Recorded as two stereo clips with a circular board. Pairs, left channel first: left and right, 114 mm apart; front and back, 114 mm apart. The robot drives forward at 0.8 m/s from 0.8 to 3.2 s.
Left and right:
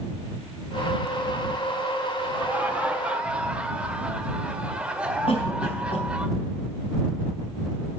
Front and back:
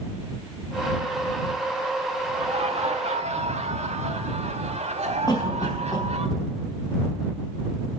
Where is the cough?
55° left, 4 m.